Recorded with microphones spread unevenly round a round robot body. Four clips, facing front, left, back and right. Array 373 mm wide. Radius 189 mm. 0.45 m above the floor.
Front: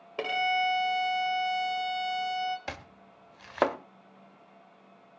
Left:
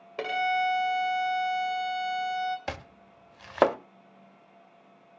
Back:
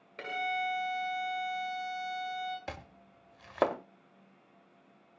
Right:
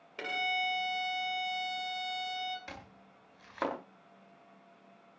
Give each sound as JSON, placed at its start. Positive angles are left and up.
{"t": 0.2, "sound": "a violin", "azimuth_deg": 35, "distance_m": 2.5}
{"t": 2.7, "sound": "chopping", "azimuth_deg": 90, "distance_m": 1.2}